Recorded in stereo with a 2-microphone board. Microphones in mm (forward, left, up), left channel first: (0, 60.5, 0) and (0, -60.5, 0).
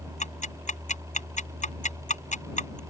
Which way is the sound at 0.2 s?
85° left.